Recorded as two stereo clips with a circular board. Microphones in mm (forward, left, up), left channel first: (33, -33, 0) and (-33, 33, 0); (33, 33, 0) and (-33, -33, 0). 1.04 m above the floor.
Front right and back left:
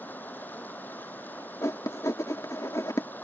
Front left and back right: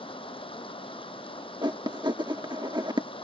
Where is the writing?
100° right.